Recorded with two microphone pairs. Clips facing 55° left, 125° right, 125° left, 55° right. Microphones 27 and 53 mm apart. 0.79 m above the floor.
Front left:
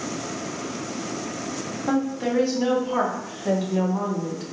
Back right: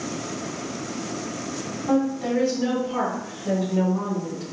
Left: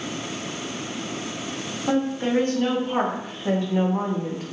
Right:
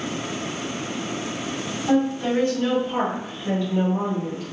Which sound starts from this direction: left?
A woman speaking, at 1.9 s.